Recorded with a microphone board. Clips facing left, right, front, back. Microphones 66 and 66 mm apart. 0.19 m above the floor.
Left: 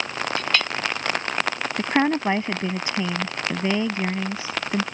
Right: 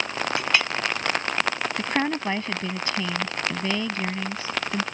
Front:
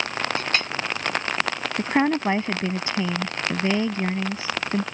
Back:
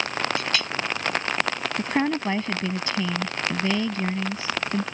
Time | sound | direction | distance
0.4 | a clink | 20° right | ?
1.8 | a woman speaking | 40° left | ?